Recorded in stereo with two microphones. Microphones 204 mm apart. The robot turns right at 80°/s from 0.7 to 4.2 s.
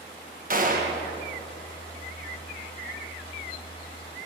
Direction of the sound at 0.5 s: 45° right (ahead or behind).